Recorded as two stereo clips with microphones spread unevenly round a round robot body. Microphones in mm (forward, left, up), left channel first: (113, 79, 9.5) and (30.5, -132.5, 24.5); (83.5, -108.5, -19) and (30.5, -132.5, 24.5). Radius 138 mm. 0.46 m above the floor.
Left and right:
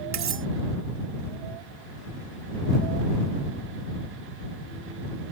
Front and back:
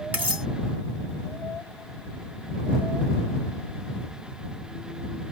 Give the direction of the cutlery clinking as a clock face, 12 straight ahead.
3 o'clock.